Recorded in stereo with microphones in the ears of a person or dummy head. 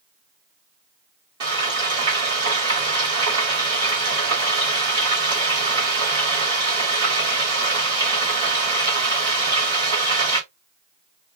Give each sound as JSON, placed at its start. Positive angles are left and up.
{"t": 1.4, "sound": "frying", "side_deg": -25, "distance_m": 2.5}